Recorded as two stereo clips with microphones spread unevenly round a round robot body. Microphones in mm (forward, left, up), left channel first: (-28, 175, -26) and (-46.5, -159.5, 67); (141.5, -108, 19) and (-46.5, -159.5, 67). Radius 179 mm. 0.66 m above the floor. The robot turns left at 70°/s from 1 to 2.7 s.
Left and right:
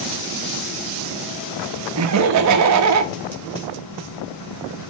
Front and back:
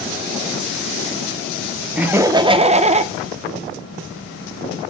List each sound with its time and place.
2.0 s laughter: 60° right, 1.2 m; by 3.1 s 110° right, 1.2 m